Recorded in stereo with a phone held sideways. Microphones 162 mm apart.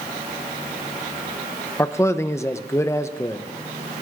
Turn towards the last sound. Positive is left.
turn(degrees=15)  # may be behind; listen again after turning